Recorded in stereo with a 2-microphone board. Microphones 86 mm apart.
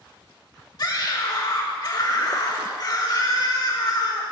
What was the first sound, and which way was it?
A scream, 50° left (ahead or behind).